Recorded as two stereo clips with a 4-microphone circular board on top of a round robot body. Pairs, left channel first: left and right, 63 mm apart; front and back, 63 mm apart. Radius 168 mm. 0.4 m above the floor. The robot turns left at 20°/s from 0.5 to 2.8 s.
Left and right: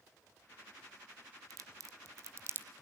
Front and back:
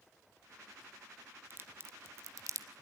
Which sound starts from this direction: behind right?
A crack, at 1.5 s.